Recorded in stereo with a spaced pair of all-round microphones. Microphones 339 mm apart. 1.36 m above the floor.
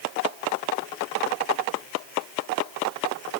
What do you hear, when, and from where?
Only background noise.